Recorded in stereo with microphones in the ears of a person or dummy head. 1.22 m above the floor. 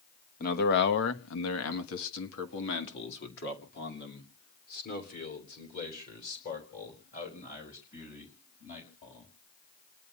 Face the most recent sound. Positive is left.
turn(degrees=40)  # may be behind; listen again after turning